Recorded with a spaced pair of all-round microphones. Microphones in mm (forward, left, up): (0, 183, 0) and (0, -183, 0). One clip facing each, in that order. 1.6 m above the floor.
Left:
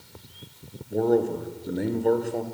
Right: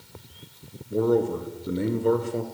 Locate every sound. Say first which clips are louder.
0.9 s a man speaking: even; 10° right (ahead or behind), 1.1 m